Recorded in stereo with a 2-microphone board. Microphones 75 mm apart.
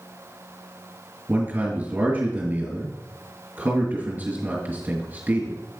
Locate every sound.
1.3 s a man speaking: 25° right (ahead or behind), 2.5 m